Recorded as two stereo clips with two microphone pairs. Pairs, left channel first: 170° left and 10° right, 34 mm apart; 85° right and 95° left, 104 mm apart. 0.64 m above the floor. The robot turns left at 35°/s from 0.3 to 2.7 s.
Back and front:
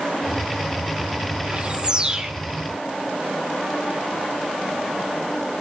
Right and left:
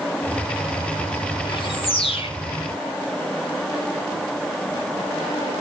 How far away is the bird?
About 2.5 m.